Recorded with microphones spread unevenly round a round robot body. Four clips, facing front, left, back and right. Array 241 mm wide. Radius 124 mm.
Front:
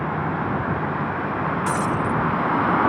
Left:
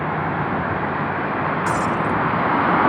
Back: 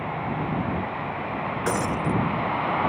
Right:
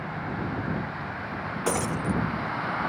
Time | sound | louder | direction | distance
0.0 | a vehicle | left 10 dB, front 4 dB | 45° left | ?
1.7 | breaking glass | left 4 dB, even | 155° right | ?